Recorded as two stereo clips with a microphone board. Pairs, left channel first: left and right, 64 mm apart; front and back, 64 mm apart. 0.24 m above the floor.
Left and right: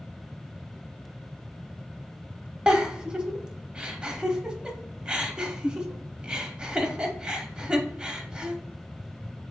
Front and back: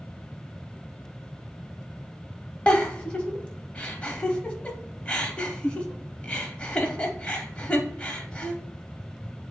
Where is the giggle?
40° right, 0.6 m.